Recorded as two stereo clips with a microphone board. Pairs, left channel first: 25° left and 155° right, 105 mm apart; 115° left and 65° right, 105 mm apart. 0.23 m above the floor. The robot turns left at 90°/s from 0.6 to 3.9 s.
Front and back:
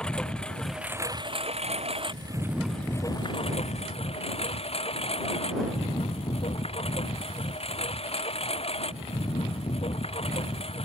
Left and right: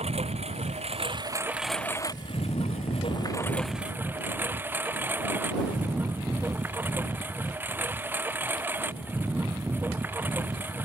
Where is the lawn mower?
60° right; by 10.8 s 5° left.